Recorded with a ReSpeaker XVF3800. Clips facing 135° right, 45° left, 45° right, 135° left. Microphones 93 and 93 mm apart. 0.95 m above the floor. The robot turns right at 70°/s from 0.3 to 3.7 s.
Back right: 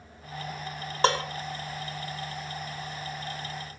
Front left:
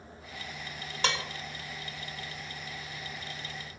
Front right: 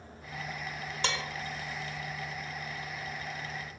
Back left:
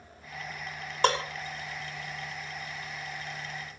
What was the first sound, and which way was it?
Dishes clattering, 175° left.